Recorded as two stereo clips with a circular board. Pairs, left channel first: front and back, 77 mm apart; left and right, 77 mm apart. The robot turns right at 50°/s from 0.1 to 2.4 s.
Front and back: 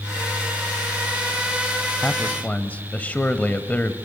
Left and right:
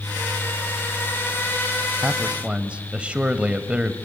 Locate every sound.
2.0 s a man speaking: 60° right, 1.0 m; by 3.9 s 40° right, 1.0 m